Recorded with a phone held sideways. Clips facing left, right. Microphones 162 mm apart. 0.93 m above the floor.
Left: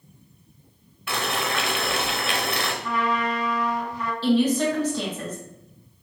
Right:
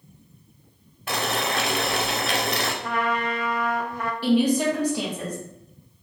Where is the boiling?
40° right (ahead or behind), 0.8 m.